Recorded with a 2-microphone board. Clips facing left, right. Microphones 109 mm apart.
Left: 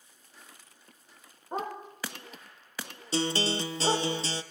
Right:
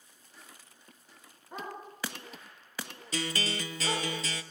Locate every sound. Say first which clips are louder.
1.5 s a dog barking: left 6 dB; 45° left (ahead or behind), 7 m; by 4.1 s 35° left (ahead or behind), 8.5 m
3.1 s a guitar: left 6 dB; 30° left (ahead or behind), 0.9 m